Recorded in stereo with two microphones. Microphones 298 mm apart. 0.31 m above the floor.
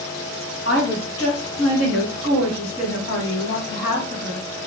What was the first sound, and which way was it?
A woman speaking, 50° left (ahead or behind).